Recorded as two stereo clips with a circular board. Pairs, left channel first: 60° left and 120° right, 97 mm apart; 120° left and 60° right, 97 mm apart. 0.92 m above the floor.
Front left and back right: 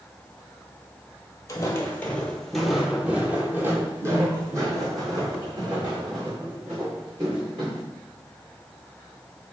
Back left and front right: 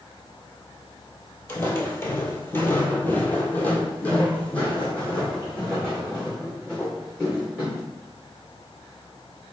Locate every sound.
1.5 s footsteps: 80° left, 1.0 m; by 7.8 s 155° right, 3 m